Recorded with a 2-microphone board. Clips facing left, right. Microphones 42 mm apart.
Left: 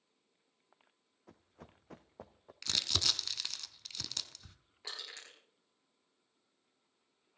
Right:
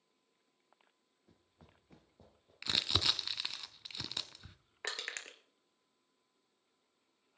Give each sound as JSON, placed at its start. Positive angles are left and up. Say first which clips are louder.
{"t": 1.3, "sound": "running footsteps", "louder": "left 8 dB", "side_deg": 65, "distance_m": 0.9}
{"t": 2.6, "sound": "crumpling", "louder": "right 1 dB", "side_deg": -20, "distance_m": 0.8}
{"t": 4.8, "sound": "crushing", "louder": "right 6 dB", "side_deg": -60, "distance_m": 1.8}